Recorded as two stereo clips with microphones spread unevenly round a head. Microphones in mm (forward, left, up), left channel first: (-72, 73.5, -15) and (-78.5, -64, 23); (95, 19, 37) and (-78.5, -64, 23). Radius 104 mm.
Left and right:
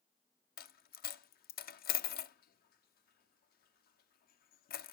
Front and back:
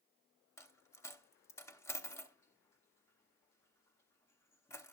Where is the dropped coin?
100° left, 0.5 m.